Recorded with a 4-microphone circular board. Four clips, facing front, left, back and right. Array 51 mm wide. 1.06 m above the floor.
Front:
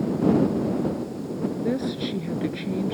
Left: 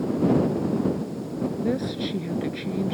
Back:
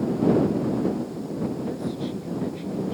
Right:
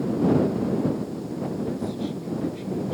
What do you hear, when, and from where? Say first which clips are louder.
1.6 s a woman speaking: left 2 dB, front 3 dB; 45° left